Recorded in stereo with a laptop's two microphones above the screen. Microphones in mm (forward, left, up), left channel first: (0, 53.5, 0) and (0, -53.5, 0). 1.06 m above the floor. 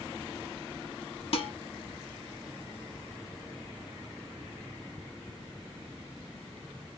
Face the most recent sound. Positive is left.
turn(degrees=65)  # may be behind; listen again after turning